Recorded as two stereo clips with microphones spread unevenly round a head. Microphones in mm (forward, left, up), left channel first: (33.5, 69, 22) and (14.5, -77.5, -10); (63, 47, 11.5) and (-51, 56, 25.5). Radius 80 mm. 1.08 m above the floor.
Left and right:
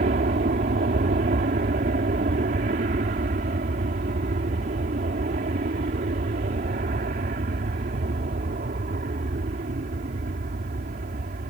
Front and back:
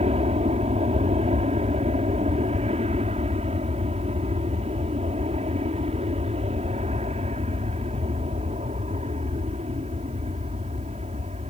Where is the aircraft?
135° right.